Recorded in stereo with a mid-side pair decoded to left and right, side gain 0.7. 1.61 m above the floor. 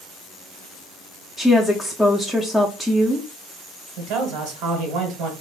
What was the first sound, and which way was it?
A woman speaking, straight ahead.